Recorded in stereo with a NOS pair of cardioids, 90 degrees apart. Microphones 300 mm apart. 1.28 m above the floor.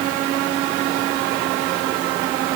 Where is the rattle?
I don't hear a rattle.